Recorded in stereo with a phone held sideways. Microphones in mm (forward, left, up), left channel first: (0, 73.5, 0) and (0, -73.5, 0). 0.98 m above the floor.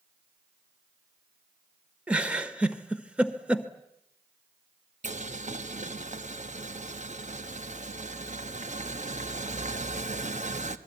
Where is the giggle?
10° right (ahead or behind), 1.3 m.